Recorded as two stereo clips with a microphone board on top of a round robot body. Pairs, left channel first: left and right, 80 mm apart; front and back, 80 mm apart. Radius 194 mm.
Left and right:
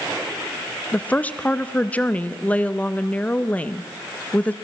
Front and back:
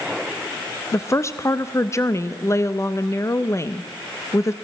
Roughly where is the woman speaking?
Ahead left.